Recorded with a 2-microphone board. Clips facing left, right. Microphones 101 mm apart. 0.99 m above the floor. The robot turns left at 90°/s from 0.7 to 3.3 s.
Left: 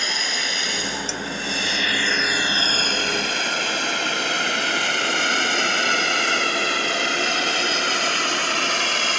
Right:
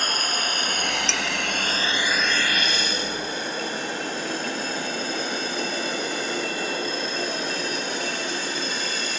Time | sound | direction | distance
0.0 | a drone | 45° right (ahead or behind) | ?
1.1 | dishes clattering | 75° right (ahead or behind) | ?